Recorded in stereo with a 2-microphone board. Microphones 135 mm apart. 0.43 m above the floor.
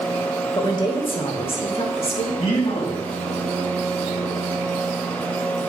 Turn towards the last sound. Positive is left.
turn(degrees=65)  # may be behind; listen again after turning